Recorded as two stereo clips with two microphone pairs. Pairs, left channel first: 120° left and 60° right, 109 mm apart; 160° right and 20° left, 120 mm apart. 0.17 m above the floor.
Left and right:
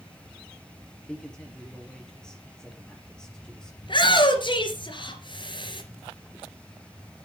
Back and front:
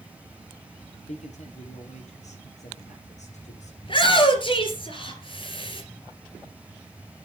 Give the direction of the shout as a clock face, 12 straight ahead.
7 o'clock.